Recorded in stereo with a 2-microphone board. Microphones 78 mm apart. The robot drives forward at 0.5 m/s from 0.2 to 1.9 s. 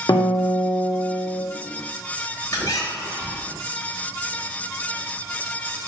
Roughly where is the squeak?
Left.